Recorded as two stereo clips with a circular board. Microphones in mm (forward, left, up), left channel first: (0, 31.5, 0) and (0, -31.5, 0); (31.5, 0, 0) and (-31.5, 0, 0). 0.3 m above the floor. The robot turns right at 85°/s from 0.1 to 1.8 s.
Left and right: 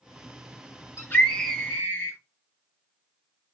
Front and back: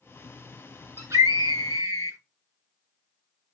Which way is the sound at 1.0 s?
140° left.